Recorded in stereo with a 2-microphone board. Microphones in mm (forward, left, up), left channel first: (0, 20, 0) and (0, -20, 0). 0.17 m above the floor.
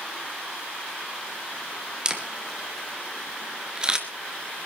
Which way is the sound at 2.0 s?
20° right (ahead or behind).